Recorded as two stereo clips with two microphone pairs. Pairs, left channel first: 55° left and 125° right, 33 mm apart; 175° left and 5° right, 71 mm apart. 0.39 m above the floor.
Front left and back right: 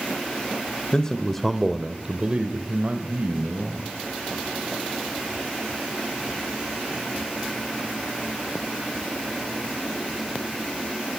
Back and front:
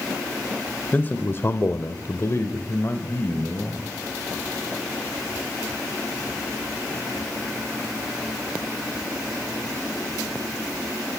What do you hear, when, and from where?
0.9 s a man speaking: 115° left, 1.4 m; by 3.9 s 130° right, 2.5 m